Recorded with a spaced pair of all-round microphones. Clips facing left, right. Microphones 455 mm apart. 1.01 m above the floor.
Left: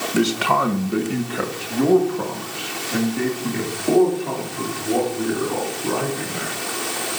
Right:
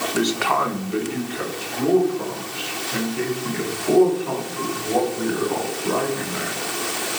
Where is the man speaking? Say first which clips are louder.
Left 3 dB; 40° left (ahead or behind), 1.3 m; by 6.6 s 50° left (ahead or behind), 5 m.